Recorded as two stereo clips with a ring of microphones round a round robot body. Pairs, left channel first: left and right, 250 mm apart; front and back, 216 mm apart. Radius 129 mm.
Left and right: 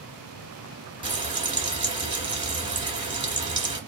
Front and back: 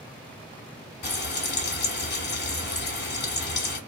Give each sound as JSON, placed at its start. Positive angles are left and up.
{"t": 1.0, "sound": "frying", "azimuth_deg": -25, "distance_m": 1.8}